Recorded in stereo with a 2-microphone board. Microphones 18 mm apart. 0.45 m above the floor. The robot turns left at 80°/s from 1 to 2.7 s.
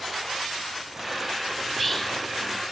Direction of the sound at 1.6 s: 170° right.